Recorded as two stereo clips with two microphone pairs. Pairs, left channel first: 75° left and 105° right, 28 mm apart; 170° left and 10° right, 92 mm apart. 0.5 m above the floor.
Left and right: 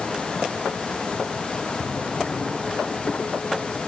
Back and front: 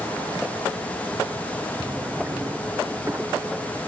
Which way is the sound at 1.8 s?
50° left.